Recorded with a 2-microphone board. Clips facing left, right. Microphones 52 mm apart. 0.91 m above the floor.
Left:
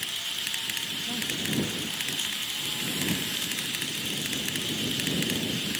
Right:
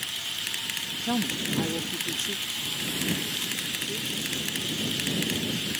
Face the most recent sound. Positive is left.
turn(degrees=-55)  # may be behind; listen again after turning